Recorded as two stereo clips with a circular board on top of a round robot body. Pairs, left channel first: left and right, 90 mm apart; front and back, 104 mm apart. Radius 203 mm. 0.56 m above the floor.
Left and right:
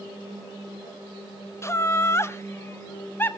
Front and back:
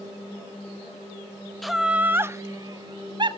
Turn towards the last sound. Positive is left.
turn(degrees=155)